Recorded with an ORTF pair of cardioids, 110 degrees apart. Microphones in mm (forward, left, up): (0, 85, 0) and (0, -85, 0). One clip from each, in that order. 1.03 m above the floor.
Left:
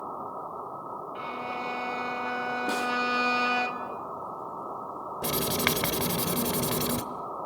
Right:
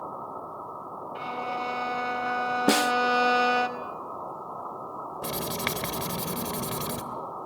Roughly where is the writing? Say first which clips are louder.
Left 4 dB; ahead.